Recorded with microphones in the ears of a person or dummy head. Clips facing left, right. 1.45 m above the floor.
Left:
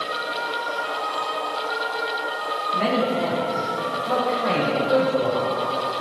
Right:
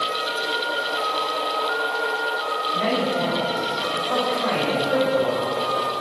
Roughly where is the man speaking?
Left.